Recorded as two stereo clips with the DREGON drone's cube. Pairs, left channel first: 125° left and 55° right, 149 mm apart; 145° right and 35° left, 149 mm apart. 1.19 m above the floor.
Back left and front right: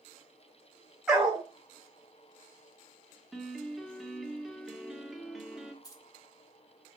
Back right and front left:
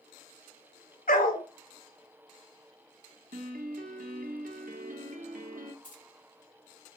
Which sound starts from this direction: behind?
Keys jangling, at 5.8 s.